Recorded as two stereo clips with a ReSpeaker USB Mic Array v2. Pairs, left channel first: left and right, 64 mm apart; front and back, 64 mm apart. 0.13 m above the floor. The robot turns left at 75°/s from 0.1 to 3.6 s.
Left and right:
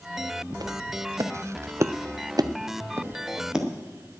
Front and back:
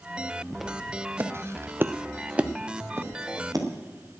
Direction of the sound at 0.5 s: 90° right.